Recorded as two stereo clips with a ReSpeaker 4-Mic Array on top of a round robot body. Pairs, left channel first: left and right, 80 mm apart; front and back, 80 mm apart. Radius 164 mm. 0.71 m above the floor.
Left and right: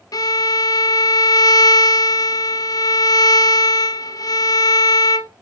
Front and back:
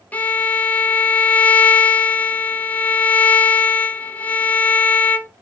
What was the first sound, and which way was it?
A violin, 65° left.